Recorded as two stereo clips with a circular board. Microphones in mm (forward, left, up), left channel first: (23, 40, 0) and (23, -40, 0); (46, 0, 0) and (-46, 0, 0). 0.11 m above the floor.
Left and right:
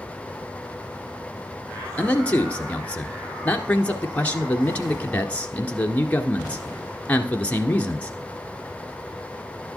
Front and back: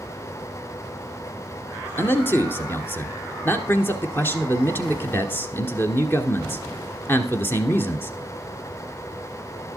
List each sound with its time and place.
2.0 s a man speaking: 35° left, 1.3 m